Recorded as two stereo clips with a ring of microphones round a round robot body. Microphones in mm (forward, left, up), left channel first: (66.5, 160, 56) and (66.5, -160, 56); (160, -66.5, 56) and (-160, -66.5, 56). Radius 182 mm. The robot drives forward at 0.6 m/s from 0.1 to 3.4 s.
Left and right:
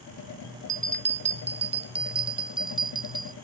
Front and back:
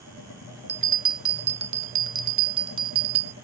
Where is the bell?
145° right; by 3.3 s 170° right.